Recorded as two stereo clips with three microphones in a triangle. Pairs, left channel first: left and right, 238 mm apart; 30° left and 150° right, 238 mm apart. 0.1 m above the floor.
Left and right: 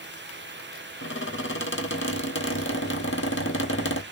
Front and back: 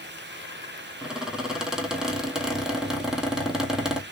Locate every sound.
1.0 s a squeak: 120° left, 1.3 m